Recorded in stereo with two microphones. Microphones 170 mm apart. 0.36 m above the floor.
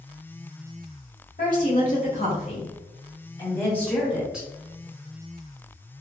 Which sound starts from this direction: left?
A woman speaking, at 1.4 s.